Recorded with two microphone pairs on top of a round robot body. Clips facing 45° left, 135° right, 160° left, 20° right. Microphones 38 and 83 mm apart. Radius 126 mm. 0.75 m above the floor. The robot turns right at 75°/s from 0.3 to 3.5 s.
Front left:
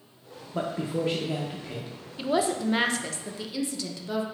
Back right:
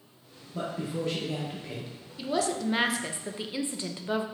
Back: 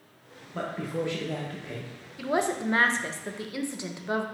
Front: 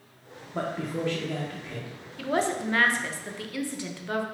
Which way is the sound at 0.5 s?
65° left.